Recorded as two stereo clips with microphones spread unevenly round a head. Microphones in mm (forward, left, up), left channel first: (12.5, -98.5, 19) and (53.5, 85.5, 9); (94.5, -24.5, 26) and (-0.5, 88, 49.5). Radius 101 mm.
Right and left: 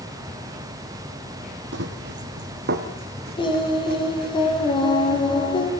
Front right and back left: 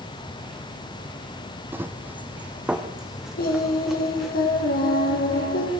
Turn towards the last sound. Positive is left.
turn(degrees=-40)